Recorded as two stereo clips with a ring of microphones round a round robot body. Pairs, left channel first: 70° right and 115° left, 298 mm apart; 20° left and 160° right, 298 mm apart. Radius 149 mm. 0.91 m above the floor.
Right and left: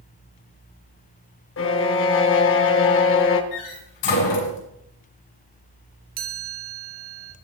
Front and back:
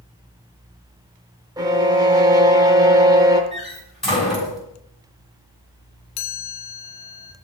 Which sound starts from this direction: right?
A violin, at 1.6 s.